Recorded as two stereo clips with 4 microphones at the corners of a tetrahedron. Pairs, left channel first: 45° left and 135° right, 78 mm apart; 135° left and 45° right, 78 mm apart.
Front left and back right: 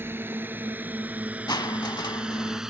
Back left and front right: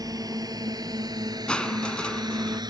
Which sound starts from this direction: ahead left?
Crushing, at 1.5 s.